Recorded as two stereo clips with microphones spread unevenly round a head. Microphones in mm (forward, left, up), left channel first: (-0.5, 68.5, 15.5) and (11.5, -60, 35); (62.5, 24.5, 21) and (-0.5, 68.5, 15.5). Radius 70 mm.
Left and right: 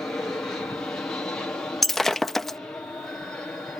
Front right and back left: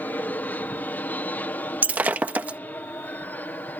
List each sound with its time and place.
0.0 s an aircraft: 20° left
1.8 s breaking glass: 160° right